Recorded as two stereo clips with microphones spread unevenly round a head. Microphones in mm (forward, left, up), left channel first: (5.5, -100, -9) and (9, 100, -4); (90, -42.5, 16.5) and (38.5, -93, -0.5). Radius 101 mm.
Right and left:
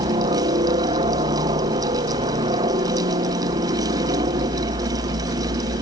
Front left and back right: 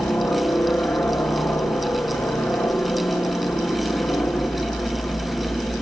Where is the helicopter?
95° left.